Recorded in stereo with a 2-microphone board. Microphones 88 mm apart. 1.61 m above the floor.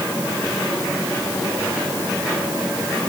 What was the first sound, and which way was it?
Only background noise.